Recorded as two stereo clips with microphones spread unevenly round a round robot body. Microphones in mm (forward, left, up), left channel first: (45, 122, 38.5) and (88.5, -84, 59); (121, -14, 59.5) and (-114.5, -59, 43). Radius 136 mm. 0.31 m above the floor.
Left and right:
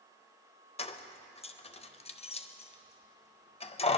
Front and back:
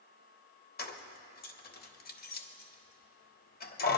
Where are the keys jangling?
55° left, 1.0 m.